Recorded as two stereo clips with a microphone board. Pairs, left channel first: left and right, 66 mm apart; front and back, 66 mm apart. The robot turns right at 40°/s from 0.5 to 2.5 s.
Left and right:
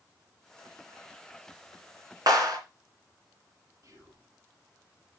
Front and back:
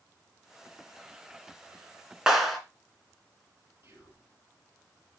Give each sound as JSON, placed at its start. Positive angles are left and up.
{"t": 2.3, "sound": "a clap", "azimuth_deg": -95, "distance_m": 2.5}
{"t": 3.8, "sound": "whispering", "azimuth_deg": -125, "distance_m": 5.5}